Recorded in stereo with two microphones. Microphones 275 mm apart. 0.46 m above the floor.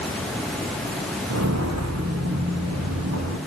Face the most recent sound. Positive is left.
turn(degrees=-70)  # may be behind; listen again after turning